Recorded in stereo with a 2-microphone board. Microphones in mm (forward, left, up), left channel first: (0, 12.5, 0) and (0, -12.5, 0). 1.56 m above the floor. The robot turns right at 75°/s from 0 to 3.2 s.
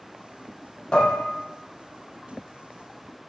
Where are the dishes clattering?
40° left (ahead or behind), 0.7 m; by 1.2 s 30° left (ahead or behind), 0.7 m.